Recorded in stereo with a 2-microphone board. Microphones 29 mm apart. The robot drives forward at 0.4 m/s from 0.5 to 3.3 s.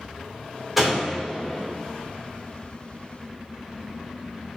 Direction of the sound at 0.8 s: 5° right (ahead or behind).